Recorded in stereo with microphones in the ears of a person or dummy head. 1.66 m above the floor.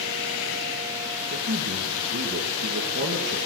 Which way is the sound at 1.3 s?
45° right (ahead or behind).